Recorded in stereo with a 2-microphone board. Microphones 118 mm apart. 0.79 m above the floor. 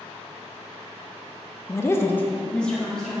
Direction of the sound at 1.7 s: 20° left (ahead or behind).